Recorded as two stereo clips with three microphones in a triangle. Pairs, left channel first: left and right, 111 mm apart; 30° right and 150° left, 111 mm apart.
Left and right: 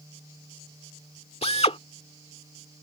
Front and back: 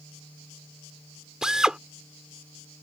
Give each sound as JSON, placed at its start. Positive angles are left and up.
{"t": 1.4, "sound": "a drill", "azimuth_deg": 65}